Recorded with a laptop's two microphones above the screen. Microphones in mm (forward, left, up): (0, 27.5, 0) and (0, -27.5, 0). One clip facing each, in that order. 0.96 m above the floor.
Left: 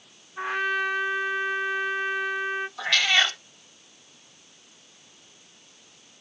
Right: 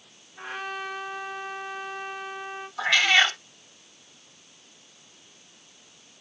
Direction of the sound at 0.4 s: 80° left.